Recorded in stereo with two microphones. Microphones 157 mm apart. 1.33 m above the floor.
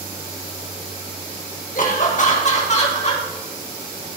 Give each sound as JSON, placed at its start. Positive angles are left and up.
{"t": 1.8, "sound": "laughter", "side_deg": 55, "distance_m": 1.7}